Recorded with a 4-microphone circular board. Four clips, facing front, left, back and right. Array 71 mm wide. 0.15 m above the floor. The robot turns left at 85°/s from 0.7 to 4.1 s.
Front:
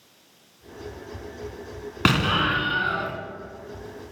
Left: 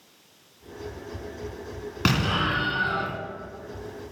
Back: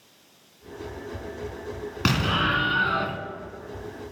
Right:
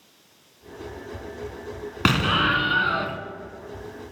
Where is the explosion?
40° right, 0.8 m; by 3.2 s 135° right, 0.8 m.